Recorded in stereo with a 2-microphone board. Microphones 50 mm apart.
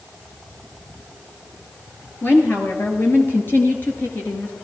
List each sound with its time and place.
2.2 s a woman speaking: 45° left (ahead or behind), 2.5 m; by 4.5 s 35° left (ahead or behind), 2 m